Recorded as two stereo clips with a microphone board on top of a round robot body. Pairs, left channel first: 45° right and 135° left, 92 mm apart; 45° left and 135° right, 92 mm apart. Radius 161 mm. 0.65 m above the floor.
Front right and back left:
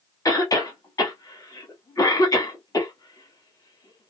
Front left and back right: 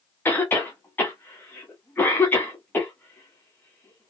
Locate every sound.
0.2 s a cough: 15° right, 1.6 m